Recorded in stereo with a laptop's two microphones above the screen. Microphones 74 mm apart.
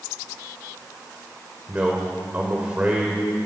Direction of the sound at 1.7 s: 20° right (ahead or behind).